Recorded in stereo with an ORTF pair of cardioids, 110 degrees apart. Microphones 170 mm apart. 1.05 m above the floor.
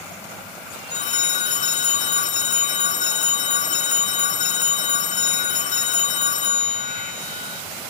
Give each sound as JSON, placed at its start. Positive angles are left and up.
{"t": 0.9, "sound": "a phone ringing", "azimuth_deg": 50, "distance_m": 1.4}